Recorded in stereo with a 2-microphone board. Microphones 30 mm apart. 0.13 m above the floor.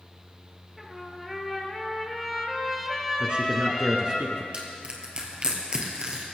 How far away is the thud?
I don't hear a thud.